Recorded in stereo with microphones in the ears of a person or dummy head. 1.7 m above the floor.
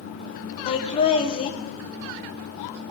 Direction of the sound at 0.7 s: 40° left (ahead or behind).